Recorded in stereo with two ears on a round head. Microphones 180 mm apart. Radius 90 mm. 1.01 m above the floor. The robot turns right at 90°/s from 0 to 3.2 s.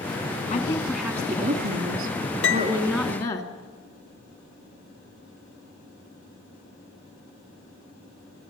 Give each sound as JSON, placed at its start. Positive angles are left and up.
{"t": 0.5, "sound": "a woman speaking", "azimuth_deg": 135, "distance_m": 2.5}
{"t": 2.4, "sound": "a piano", "azimuth_deg": 60, "distance_m": 0.7}